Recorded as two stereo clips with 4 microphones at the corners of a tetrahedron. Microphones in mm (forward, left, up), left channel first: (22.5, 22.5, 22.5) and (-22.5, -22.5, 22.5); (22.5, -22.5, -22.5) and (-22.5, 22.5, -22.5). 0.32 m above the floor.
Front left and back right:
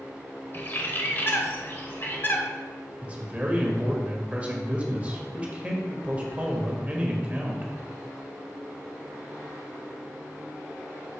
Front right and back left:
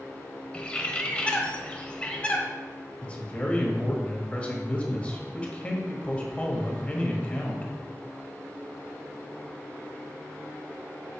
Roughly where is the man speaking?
Right.